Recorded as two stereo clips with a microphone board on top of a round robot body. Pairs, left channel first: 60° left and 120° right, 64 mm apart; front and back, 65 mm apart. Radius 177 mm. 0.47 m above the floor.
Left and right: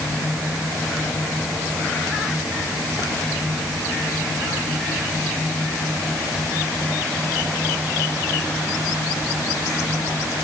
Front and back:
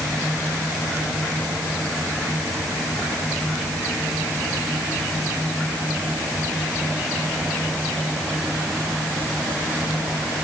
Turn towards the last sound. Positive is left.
No sound to turn to.